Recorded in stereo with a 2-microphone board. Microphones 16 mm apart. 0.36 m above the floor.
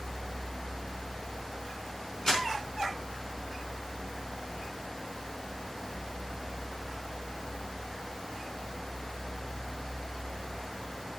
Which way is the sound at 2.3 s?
40° left (ahead or behind).